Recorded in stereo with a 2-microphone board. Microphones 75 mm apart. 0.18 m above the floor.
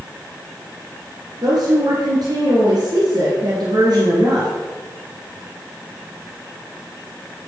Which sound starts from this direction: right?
A woman speaking, at 1.4 s.